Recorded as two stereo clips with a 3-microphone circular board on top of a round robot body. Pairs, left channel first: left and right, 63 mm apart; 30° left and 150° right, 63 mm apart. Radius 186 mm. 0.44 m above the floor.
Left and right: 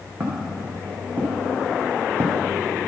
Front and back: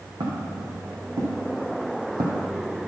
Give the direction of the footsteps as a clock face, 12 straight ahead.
5 o'clock.